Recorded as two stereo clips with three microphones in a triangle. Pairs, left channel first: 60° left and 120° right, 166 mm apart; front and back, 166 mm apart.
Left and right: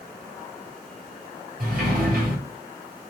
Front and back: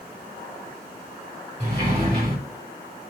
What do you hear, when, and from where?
1.6 s a sliding door: 130° right, 3 m